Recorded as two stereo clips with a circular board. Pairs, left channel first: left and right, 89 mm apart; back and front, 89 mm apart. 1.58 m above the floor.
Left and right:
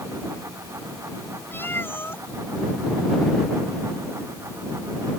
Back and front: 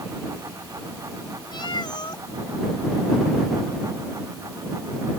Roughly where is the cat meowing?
Behind left.